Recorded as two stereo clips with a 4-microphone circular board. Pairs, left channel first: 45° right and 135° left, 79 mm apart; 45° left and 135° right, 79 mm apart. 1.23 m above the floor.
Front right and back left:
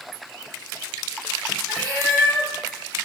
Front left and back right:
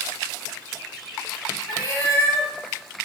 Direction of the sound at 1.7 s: 10° left.